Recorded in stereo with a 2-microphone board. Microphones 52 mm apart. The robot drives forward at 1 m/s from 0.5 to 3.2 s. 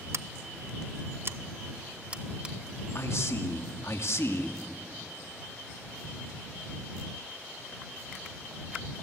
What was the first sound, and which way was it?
Scissors, 60° right (ahead or behind).